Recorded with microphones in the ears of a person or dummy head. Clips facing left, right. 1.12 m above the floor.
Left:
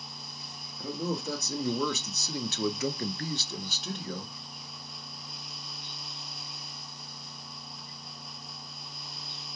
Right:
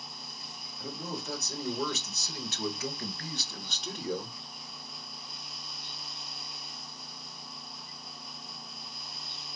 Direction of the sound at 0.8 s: 80° left.